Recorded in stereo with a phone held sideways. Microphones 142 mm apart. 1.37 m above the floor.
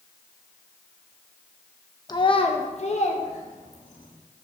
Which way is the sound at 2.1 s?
30° left (ahead or behind).